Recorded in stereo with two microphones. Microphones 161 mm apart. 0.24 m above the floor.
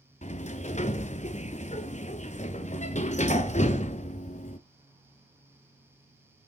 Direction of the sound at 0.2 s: 45° left (ahead or behind).